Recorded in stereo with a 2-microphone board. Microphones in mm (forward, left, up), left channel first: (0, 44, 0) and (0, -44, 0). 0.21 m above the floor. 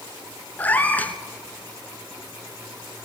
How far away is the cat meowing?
About 1.3 m.